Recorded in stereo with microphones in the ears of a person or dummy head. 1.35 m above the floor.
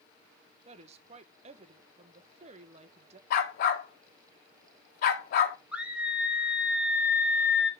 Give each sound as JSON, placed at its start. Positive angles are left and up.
{"t": 0.7, "sound": "a woman speaking", "side_deg": -35, "distance_m": 0.9}
{"t": 3.3, "sound": "a dog barking", "side_deg": 50, "distance_m": 1.7}
{"t": 5.7, "sound": "a scream", "side_deg": -5, "distance_m": 2.0}